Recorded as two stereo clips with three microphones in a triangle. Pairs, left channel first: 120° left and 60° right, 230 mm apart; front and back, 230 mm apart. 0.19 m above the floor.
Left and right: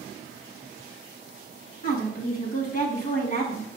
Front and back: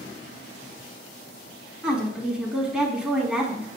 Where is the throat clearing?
I don't hear throat clearing.